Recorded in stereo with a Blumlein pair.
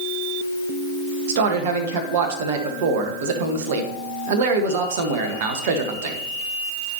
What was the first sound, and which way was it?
A man speaking, 50° right.